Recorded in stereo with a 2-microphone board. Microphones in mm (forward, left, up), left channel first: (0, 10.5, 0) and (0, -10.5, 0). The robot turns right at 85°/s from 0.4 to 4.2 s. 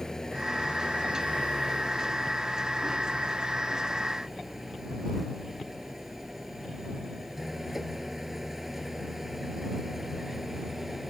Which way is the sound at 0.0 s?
25° left.